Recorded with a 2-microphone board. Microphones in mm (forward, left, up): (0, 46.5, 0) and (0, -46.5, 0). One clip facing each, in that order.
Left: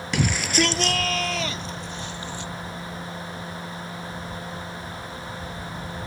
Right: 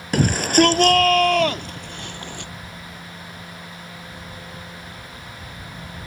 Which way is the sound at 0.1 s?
45° right (ahead or behind).